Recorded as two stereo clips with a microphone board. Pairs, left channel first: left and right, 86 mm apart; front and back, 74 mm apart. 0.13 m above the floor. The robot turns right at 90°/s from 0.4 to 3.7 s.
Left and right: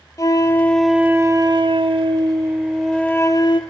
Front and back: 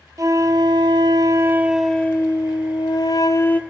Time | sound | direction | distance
0.2 | a flute | 140° left | 0.5 m